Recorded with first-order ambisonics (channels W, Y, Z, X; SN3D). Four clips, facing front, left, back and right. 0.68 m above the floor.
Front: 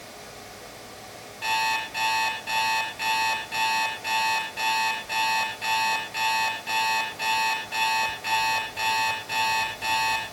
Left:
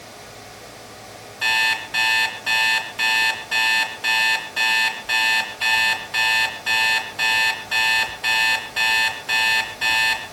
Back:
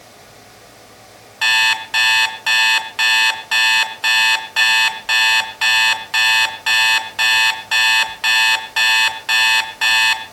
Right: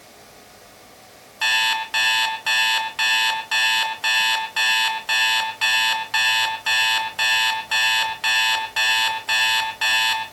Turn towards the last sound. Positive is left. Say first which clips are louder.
# even, back 10 dB
turn(degrees=-165)